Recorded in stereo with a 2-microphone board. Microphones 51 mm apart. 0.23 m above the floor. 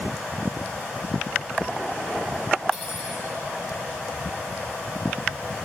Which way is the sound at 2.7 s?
15° left (ahead or behind).